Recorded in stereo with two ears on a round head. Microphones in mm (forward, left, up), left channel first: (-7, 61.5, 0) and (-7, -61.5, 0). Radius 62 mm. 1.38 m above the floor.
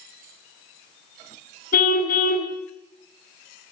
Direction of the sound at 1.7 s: 70° left (ahead or behind).